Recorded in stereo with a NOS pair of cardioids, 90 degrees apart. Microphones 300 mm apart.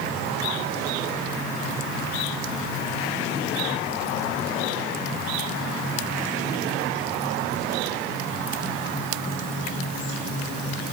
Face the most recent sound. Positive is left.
No sound to turn to.